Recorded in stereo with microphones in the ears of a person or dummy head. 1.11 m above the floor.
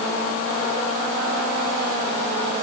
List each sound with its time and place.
Only background noise.